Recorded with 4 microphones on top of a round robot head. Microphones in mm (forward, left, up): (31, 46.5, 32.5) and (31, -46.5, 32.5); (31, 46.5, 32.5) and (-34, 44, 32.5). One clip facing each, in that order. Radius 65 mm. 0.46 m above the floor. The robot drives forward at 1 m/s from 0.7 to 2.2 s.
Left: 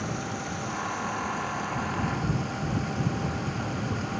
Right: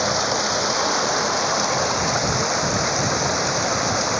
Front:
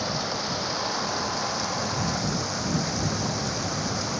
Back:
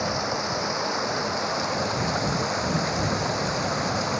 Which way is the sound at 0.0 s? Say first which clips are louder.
Right 11 dB, back 3 dB; 105° right.